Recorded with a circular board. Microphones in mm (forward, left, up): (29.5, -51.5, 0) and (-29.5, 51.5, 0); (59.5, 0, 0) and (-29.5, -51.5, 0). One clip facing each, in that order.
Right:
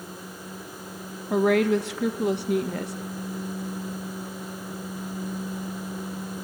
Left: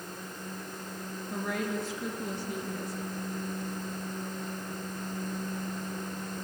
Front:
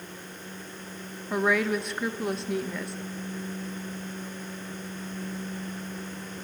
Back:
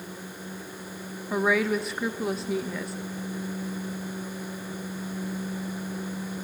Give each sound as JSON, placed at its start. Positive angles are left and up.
{"t": 1.3, "sound": "a woman speaking", "azimuth_deg": -60, "distance_m": 0.6}